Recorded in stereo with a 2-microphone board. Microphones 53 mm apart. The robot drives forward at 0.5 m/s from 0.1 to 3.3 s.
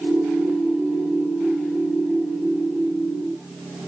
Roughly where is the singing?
I don't hear singing.